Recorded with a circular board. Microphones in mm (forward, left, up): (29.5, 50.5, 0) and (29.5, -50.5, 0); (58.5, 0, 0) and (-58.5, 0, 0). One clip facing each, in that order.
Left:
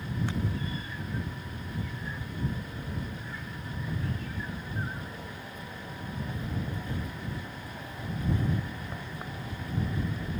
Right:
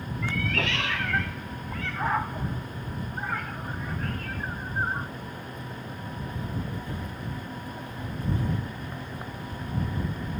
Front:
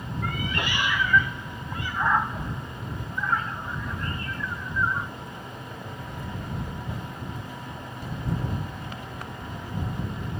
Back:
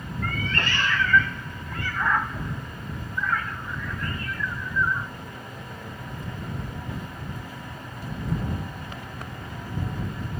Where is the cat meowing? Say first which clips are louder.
Right 5 dB, back 1 dB; 80° right; by 5.1 s 60° right.